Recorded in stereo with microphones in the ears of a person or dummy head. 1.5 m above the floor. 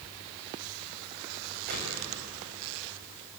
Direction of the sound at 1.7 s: 55° right (ahead or behind).